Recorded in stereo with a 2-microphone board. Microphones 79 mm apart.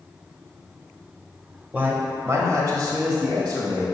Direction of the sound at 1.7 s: 20° right (ahead or behind).